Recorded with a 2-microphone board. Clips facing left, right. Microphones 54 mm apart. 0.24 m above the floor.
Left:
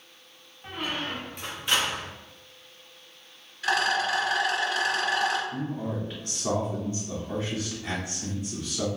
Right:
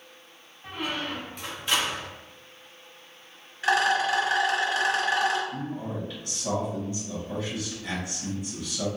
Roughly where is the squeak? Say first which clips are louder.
Even; centre.